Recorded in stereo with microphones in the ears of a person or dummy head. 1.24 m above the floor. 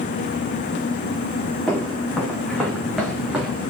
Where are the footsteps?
5° left (ahead or behind), 4.5 m; by 3.6 s 5° right (ahead or behind), 3 m.